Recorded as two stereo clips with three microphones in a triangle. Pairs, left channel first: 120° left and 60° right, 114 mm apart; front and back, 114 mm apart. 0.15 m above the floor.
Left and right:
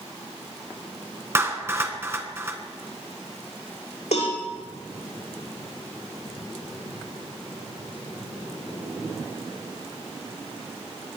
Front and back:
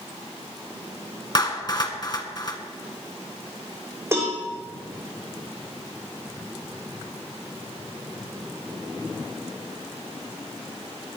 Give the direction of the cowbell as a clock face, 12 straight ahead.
8 o'clock.